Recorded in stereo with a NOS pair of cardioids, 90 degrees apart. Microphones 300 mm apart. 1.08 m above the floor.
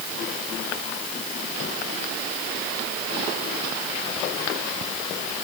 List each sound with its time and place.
Only background noise.